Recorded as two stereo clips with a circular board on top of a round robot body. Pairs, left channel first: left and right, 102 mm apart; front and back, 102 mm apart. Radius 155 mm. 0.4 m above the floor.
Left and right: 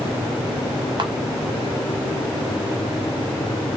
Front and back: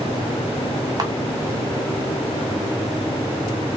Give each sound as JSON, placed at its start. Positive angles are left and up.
{"t": 1.0, "sound": "a camera shutter", "azimuth_deg": -130, "distance_m": 1.2}